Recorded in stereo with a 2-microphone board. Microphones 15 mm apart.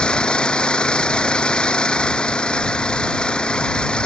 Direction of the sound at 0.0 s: 75° left (ahead or behind).